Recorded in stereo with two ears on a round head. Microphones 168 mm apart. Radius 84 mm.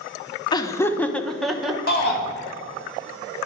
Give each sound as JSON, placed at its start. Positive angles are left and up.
{"t": 0.5, "sound": "laughter", "side_deg": 20, "distance_m": 0.6}
{"t": 1.9, "sound": "a shout", "side_deg": 55, "distance_m": 1.9}